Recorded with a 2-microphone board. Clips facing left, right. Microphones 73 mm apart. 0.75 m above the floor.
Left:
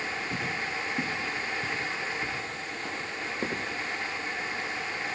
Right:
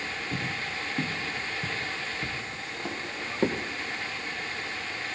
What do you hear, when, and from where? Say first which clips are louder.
0.3 s footsteps: left 1 dB; 5° left (ahead or behind), 1.2 m; by 3.6 s 20° right (ahead or behind), 2.5 m